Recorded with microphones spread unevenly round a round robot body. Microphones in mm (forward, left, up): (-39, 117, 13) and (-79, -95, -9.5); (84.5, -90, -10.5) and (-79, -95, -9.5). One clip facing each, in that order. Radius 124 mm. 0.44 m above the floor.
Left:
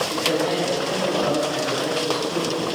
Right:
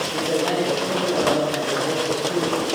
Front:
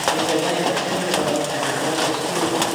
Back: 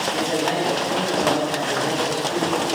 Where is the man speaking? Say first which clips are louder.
Right 2 dB, front 3 dB; 35° left, 3 m.